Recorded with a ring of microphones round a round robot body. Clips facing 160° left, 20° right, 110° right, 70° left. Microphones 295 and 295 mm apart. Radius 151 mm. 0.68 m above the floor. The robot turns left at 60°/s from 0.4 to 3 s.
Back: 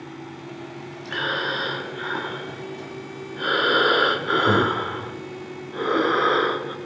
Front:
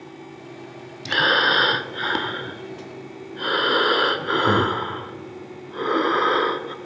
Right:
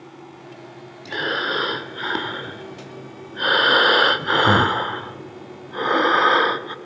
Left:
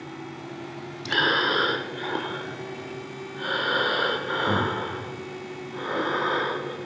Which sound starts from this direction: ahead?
Breathing, at 1.1 s.